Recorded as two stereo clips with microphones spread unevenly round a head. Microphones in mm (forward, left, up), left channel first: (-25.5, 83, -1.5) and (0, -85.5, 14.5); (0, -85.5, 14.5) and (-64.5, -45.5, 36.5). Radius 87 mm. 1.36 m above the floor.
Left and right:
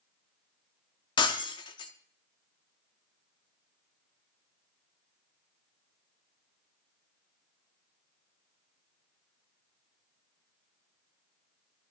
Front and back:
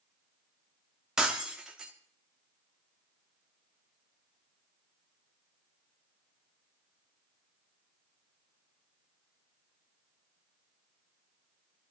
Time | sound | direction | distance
1.2 | breaking glass | 135° left | 0.9 m